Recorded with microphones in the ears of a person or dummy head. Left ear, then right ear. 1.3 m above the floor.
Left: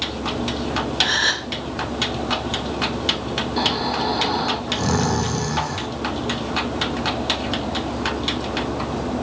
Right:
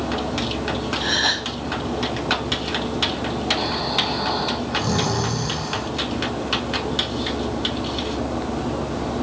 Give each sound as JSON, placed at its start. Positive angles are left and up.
{"t": 1.0, "sound": "a gasp", "side_deg": 55, "distance_m": 1.2}
{"t": 3.6, "sound": "snoring", "side_deg": 65, "distance_m": 1.8}